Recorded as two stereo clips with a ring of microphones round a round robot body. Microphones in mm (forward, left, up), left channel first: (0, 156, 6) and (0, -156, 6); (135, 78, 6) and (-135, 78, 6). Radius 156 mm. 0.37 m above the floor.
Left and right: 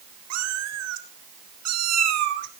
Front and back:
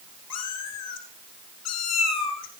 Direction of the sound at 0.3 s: 45° right.